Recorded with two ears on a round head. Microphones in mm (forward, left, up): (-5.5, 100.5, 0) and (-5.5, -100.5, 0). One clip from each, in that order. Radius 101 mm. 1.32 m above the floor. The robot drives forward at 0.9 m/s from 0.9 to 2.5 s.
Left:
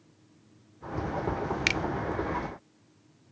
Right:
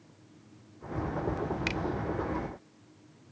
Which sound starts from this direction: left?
A finger snap, at 1.7 s.